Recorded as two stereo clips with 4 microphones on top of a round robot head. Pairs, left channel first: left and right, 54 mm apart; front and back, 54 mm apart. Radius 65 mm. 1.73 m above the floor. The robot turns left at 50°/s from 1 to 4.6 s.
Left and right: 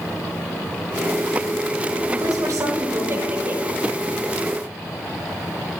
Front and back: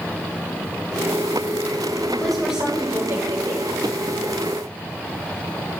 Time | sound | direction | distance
2.1 | a woman speaking | 75° right | 6 m